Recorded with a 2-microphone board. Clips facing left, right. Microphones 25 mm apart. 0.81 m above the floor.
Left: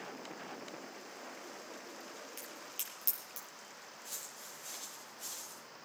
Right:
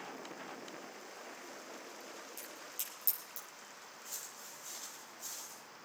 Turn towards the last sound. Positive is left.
turn(degrees=60)  # may be behind; listen again after turning